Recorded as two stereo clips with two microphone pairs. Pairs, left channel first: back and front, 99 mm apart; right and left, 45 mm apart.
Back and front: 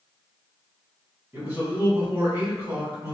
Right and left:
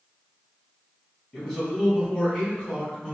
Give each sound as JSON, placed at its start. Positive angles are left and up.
{"t": 1.3, "sound": "a man speaking", "azimuth_deg": -25, "distance_m": 1.7}